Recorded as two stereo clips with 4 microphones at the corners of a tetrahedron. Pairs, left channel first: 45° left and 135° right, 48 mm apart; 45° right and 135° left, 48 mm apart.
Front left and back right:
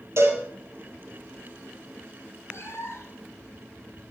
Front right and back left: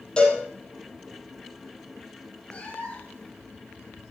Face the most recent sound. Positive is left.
turn(degrees=15)